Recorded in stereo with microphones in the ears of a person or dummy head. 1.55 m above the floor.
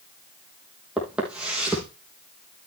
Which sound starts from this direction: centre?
Footsteps, at 1.0 s.